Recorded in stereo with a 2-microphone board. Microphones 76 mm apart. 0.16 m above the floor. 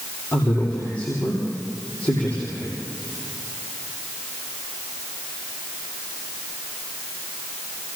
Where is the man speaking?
20° left (ahead or behind), 6.5 m.